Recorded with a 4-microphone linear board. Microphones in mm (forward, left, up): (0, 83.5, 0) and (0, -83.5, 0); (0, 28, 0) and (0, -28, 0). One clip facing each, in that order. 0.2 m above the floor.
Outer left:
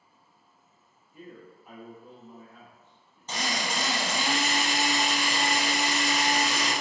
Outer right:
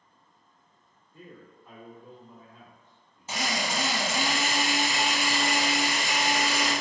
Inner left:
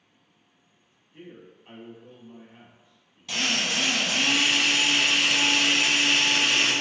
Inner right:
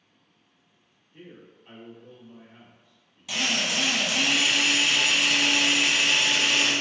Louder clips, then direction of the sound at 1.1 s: Outer left 2 dB, inner left 2 dB; 15° left (ahead or behind).